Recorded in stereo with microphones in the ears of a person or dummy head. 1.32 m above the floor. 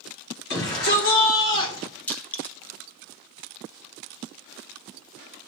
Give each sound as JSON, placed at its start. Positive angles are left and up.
{"t": 0.5, "sound": "a shout", "side_deg": 55, "distance_m": 3.5}
{"t": 2.1, "sound": "crushing", "side_deg": 10, "distance_m": 1.0}